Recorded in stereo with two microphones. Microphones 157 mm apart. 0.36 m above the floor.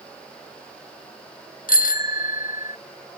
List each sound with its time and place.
1.7 s a bicycle bell: 70° left (ahead or behind); by 2.8 s 55° left (ahead or behind)